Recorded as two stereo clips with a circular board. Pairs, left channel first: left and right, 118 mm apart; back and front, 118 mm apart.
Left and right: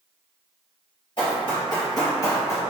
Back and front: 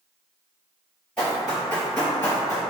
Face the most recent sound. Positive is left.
turn(degrees=135)